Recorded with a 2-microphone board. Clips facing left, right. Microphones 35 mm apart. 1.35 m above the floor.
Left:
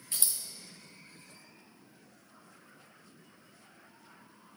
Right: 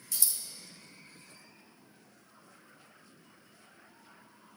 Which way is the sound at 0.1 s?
35° left (ahead or behind).